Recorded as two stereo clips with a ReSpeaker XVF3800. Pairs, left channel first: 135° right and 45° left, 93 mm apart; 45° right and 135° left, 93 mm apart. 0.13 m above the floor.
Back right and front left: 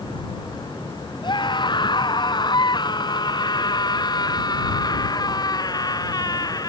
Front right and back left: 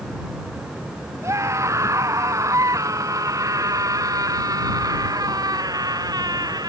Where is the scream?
165° right; by 6.7 s straight behind.